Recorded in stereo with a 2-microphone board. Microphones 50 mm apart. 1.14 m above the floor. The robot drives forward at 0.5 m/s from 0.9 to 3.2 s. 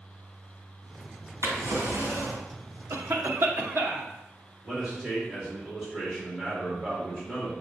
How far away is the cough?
About 0.9 m.